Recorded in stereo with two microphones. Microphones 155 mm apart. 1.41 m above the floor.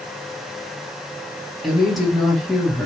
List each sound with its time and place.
1.6 s a woman speaking: centre (ahead or behind), 2.5 m